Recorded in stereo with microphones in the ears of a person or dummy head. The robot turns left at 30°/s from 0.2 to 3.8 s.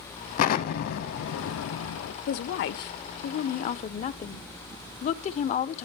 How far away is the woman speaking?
About 0.9 m.